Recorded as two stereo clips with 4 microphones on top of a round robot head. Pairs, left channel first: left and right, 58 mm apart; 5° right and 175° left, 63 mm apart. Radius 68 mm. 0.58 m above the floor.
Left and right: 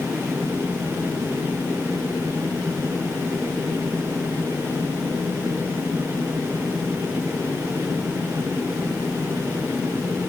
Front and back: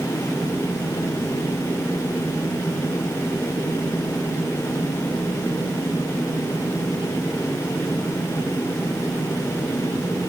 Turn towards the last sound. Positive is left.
No sound to turn to.